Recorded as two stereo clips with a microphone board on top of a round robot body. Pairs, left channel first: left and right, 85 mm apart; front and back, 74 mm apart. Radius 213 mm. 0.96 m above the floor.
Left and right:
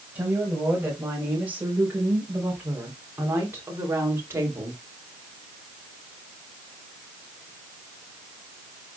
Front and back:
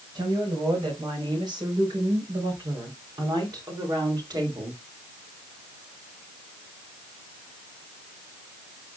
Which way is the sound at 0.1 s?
160° right.